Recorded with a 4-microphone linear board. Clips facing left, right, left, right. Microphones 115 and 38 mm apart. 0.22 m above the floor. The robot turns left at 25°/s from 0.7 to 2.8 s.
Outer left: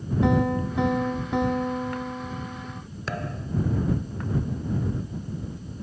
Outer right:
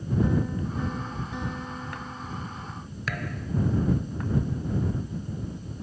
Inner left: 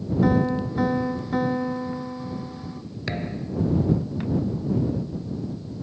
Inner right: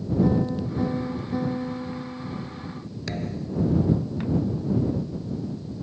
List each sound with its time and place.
0.2 s a piano: 85° left; by 2.8 s 30° left
3.1 s a thud: 30° left (ahead or behind)